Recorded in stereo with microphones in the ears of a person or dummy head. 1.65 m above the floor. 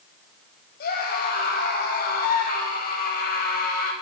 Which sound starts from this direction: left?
A scream, at 0.8 s.